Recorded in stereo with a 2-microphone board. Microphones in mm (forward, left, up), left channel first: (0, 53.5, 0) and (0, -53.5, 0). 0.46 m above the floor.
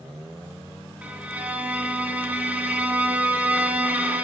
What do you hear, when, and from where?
1.0 s a violin: 15° right (ahead or behind), 2 m